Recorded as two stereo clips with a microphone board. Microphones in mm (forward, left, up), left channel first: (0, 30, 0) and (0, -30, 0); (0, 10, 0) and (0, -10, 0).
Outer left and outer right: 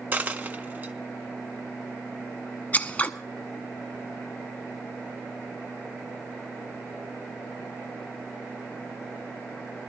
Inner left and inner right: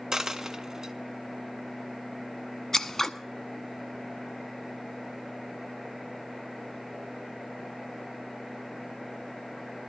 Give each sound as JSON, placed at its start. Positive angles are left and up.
{"t": 0.1, "sound": "a dropped coin", "side_deg": -30, "distance_m": 0.7}
{"t": 2.7, "sound": "scissors", "side_deg": 25, "distance_m": 0.6}